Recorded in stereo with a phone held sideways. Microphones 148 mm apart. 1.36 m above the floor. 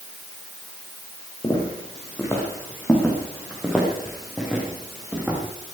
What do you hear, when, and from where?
1.4 s footsteps: 25° left (ahead or behind), 5 m; by 5.4 s 10° right (ahead or behind), 6 m